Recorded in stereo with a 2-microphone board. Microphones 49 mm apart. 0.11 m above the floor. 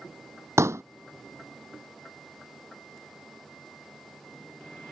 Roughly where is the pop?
Right.